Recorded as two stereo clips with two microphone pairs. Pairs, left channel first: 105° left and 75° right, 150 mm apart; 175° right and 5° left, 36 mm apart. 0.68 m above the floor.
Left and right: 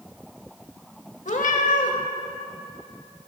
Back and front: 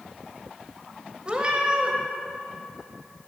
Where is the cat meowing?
70° left, 0.9 m.